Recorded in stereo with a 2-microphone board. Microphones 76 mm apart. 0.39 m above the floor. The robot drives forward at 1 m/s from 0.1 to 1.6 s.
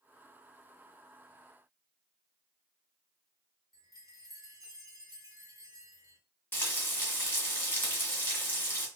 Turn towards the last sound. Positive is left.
turn(degrees=30)  # may be behind; listen again after turning